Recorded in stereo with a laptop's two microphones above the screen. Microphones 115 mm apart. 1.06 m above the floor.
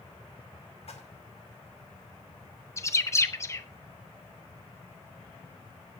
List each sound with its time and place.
0.9 s a splash: 65° left (ahead or behind), 2 m
2.8 s a bird: 25° left (ahead or behind), 0.6 m